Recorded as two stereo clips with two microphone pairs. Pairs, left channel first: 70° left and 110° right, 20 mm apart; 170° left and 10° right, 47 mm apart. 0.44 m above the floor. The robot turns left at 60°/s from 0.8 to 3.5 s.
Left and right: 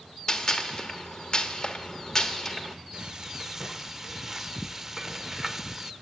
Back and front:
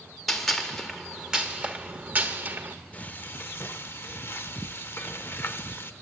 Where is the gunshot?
90° left, 1.2 m; by 2.8 s 25° right, 1.2 m.